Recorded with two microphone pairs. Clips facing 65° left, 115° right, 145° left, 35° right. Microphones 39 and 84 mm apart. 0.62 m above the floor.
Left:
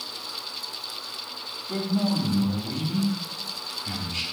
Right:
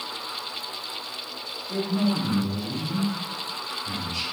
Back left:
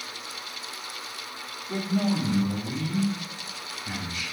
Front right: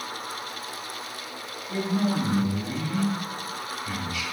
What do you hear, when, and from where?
1.7 s a man speaking: 95° left, 1.4 m